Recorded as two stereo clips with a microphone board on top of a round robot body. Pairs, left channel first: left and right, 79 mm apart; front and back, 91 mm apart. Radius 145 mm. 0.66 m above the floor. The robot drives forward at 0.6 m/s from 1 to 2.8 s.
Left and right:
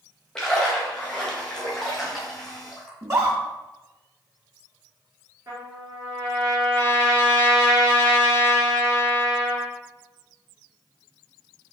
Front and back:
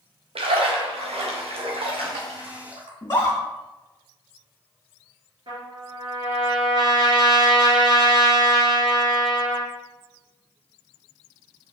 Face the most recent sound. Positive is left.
turn(degrees=-145)